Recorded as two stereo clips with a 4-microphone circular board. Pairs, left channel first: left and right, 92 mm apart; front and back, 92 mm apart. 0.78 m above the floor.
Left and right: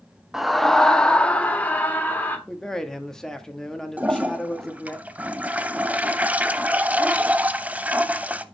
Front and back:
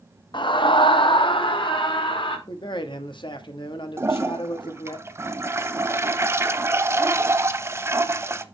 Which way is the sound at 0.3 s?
5° right.